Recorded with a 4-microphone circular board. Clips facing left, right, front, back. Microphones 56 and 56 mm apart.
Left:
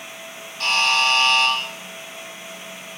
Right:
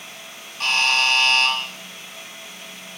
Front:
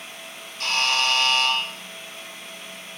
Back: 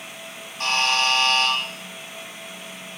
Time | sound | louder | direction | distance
0.6 | a buzzer | left 1 dB, back 2 dB | 160° right | 1.0 m